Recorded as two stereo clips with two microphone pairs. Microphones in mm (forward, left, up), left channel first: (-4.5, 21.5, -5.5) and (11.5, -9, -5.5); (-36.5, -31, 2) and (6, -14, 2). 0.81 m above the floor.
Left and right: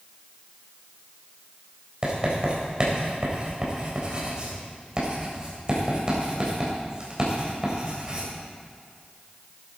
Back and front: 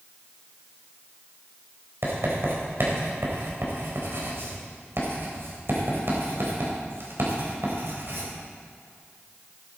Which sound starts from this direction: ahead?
Writing, at 2.0 s.